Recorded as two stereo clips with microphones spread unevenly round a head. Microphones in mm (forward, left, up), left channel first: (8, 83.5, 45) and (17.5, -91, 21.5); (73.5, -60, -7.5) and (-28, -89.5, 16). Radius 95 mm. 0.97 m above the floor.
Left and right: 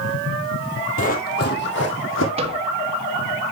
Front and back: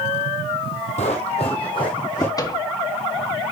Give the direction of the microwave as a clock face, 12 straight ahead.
1 o'clock.